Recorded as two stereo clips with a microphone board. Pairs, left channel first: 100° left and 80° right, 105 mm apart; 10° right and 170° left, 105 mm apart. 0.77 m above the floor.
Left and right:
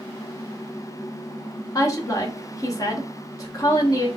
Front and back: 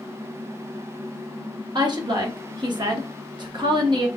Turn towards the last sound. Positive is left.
turn(degrees=140)